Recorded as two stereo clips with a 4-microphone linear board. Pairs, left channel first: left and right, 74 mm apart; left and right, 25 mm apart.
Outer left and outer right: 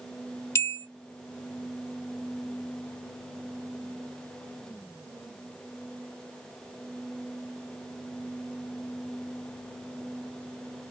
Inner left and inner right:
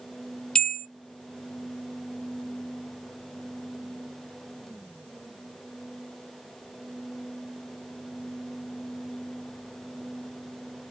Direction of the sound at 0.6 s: 40° left (ahead or behind).